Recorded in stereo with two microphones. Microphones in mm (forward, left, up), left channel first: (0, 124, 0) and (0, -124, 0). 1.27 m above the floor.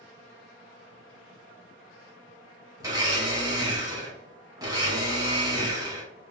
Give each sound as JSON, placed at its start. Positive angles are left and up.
{"t": 2.8, "sound": "a blender", "side_deg": -15, "distance_m": 1.0}